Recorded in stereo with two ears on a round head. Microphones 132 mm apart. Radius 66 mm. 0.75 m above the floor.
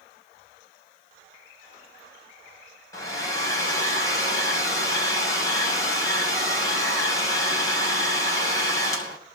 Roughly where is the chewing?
I don't hear chewing.